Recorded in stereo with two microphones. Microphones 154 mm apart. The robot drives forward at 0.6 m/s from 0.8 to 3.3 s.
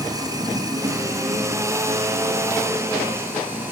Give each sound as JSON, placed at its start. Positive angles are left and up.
{"t": 0.0, "sound": "running water", "side_deg": -25, "distance_m": 1.7}